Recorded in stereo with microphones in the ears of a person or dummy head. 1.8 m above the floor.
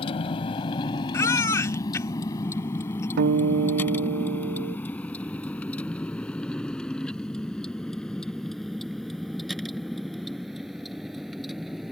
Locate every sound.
0.0 s a vehicle: 35° left (ahead or behind); by 11.9 s centre (ahead or behind)
1.1 s a baby crying: 20° left (ahead or behind)
3.2 s a guitar: 55° right (ahead or behind)